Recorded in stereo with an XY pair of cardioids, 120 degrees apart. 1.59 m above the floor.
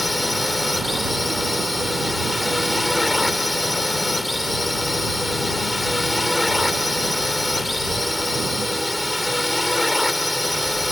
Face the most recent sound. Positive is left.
turn(degrees=10)